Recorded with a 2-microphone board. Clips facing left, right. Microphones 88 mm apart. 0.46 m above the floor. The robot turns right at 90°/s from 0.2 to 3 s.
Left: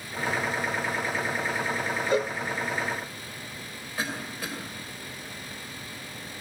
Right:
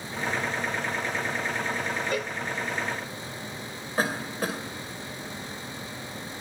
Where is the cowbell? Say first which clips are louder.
Left 5 dB; 20° left (ahead or behind), 0.6 m; by 2.4 s 40° left (ahead or behind), 0.6 m.